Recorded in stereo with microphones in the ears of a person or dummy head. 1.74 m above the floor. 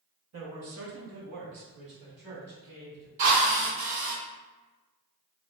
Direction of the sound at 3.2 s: 45° right (ahead or behind).